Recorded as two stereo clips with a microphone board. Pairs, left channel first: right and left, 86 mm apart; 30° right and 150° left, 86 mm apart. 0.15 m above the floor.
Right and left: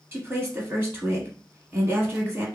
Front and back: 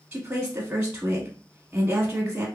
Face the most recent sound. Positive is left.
turn(degrees=100)